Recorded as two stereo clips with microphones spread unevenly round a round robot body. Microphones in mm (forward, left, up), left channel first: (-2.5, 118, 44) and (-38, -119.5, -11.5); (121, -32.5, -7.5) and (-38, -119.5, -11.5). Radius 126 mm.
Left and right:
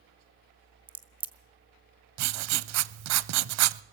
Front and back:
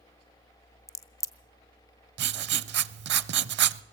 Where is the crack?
40° right, 0.7 m.